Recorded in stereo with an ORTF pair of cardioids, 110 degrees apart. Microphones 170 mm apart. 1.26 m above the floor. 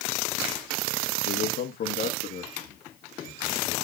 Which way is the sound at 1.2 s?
65° left.